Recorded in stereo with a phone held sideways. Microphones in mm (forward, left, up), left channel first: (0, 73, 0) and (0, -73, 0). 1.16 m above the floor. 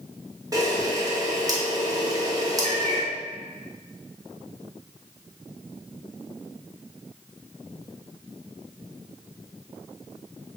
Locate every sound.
0.5 s a camera shutter: 25° right (ahead or behind), 0.9 m
2.6 s a cat meowing: 45° right (ahead or behind), 0.8 m